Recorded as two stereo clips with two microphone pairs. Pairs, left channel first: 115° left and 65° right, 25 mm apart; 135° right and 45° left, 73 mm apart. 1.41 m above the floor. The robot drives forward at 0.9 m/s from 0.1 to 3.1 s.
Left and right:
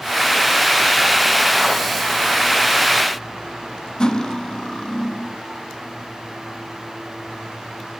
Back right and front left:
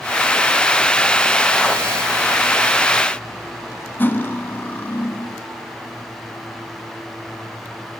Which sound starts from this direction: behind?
Cutlery clinking, at 4.0 s.